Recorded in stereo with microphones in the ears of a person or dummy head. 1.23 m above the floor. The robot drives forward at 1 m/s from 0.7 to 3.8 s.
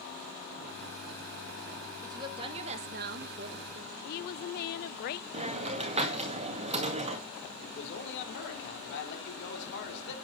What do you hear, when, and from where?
2.0 s a woman speaking: 20° right (ahead or behind), 1.3 m; by 3.9 s 30° right (ahead or behind), 0.9 m
4.0 s a woman speaking: 50° left (ahead or behind), 0.5 m
5.3 s a hiss: 30° right (ahead or behind), 2.0 m
7.6 s a man speaking: 60° left (ahead or behind), 3 m